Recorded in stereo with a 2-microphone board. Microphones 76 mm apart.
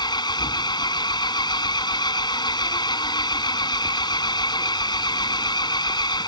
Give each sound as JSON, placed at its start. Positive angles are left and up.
{"t": 0.0, "sound": "an engine running", "side_deg": 75}